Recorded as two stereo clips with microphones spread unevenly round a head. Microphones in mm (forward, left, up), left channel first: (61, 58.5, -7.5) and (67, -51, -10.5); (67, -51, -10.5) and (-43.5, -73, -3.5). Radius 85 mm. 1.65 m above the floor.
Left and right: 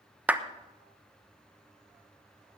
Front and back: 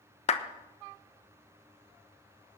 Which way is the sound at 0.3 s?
10° right.